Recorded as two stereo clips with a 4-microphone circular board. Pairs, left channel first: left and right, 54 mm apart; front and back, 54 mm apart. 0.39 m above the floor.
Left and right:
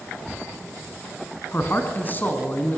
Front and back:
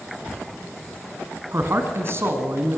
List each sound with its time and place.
1.5 s a man speaking: 140° left, 3 m